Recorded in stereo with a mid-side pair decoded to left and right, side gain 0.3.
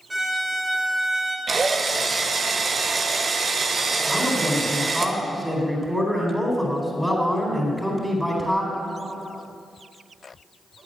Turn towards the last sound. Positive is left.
turn(degrees=-5)